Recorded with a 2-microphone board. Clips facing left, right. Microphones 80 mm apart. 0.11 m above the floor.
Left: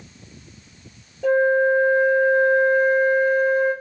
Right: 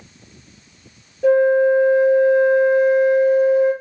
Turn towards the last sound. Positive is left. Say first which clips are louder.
# right 4 dB
turn(degrees=-10)  # may be behind; listen again after turning